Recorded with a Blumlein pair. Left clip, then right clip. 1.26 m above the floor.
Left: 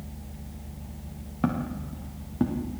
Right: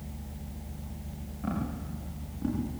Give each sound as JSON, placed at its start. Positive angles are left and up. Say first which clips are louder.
{"t": 1.4, "sound": "footsteps", "louder": "left 6 dB", "azimuth_deg": 35, "distance_m": 7.0}